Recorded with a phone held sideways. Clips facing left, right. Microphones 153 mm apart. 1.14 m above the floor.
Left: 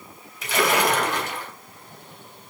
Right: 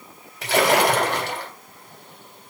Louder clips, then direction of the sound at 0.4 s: Right 4 dB; 70° right (ahead or behind).